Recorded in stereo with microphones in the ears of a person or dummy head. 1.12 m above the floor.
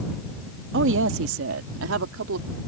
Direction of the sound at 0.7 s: 55° right (ahead or behind).